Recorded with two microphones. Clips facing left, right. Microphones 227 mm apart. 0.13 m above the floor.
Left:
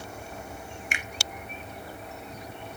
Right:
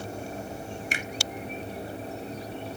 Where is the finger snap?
35° right (ahead or behind), 1.3 m.